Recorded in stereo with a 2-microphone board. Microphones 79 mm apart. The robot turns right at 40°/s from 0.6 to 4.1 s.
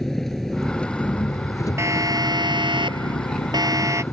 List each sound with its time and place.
0.0 s an engine running: 5° left; by 4.1 s 145° left
1.8 s a siren: 35° right (ahead or behind)